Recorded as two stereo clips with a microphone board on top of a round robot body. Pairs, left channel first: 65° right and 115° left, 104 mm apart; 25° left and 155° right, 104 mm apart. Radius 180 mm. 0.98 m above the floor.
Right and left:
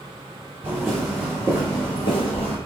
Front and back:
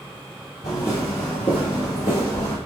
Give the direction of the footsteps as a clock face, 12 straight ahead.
11 o'clock.